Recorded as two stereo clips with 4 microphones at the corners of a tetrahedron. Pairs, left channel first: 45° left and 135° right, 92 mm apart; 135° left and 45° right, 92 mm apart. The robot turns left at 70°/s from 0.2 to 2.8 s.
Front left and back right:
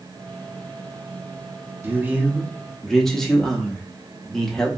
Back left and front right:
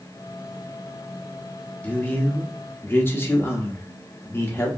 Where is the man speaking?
170° right, 0.6 m; by 4.7 s 125° left, 0.6 m.